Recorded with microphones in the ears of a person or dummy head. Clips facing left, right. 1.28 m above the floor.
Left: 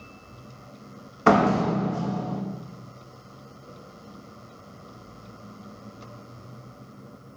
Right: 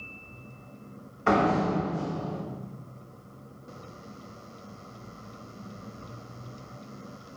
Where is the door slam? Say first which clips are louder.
Left 4 dB; 65° left (ahead or behind), 1.0 m.